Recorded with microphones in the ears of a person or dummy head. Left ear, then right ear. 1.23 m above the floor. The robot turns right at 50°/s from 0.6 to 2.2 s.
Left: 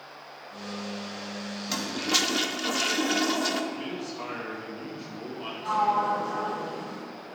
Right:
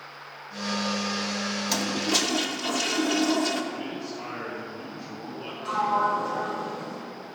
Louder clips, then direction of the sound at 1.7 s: Even; 5° right (ahead or behind).